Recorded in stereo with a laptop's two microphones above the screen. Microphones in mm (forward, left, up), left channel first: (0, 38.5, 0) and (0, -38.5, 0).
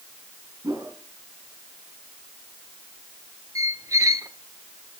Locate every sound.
0.6 s a whoosh: 55° right (ahead or behind), 5 m
3.5 s a squeak: 45° right (ahead or behind), 0.9 m